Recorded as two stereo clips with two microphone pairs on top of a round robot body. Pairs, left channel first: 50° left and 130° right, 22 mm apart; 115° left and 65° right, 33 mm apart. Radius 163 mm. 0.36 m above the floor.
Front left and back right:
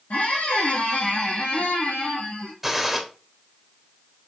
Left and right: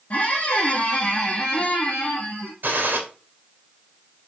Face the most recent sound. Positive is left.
turn(degrees=-45)